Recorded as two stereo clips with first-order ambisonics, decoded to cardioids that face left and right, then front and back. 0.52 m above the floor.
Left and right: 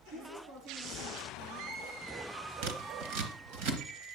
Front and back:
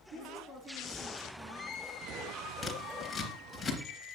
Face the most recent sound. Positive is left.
turn(degrees=-85)